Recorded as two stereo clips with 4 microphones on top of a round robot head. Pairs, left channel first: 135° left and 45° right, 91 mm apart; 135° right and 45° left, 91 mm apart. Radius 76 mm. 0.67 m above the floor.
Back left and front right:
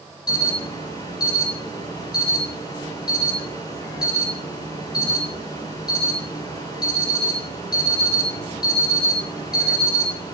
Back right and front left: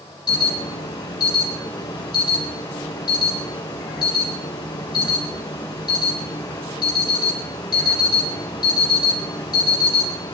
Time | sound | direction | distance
0.3 | an alarm | straight behind | 9.5 m